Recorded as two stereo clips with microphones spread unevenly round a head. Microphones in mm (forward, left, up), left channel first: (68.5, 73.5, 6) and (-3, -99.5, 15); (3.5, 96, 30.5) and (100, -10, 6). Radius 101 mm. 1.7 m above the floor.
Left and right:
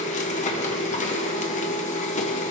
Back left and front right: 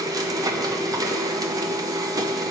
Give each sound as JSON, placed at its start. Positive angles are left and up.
{"t": 0.0, "sound": "a machine running", "azimuth_deg": 20, "distance_m": 1.0}